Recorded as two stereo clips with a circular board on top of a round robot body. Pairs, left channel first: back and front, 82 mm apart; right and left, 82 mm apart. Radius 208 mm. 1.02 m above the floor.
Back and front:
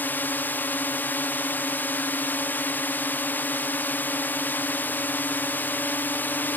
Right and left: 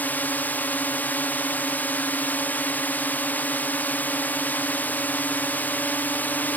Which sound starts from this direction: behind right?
A drone, at 0.0 s.